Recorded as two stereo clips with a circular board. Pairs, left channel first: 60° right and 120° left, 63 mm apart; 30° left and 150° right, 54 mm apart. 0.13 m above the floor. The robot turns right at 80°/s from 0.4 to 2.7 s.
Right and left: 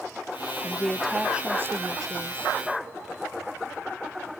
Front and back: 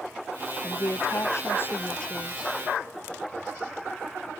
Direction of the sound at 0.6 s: 10° right.